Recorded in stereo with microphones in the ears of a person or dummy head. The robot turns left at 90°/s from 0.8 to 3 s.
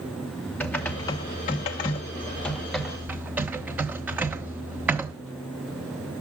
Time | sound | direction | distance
0.6 | typing on a keyboard | 5° left (ahead or behind) | 0.7 m